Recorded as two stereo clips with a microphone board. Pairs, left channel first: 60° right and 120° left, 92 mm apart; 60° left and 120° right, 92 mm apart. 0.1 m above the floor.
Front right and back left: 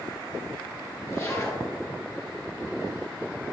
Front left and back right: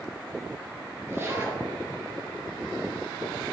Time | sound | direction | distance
1.1 | a zipper | 80° right | 2 m